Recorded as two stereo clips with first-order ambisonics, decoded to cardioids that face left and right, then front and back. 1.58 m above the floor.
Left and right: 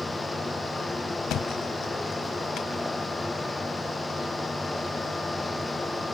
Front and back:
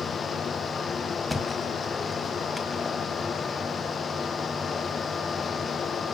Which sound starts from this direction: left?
A thud, at 1.3 s.